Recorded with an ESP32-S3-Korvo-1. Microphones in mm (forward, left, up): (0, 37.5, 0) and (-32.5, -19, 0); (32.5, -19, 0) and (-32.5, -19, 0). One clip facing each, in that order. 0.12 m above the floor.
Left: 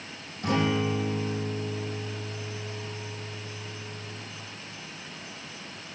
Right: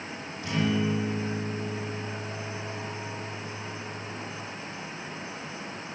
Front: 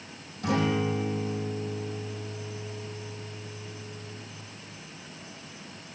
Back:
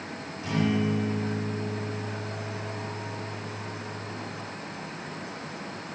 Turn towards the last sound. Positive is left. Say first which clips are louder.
# left 1 dB, even
turn(degrees=20)